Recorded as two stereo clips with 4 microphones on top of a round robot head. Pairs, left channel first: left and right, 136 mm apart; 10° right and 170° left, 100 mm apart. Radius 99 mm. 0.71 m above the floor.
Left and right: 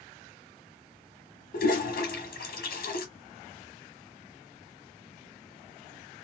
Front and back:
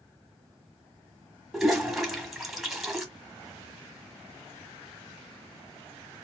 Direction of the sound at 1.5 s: 85° left.